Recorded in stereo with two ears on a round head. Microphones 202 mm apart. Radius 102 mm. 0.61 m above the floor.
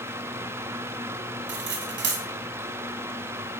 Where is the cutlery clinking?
55° right (ahead or behind), 3 m.